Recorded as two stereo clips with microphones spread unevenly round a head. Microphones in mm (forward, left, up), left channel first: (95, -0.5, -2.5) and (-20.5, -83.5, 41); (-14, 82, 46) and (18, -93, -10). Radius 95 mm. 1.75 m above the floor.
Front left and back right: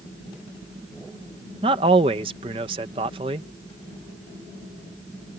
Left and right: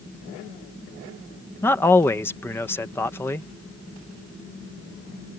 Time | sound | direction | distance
1.6 | a man speaking | 170° left | ?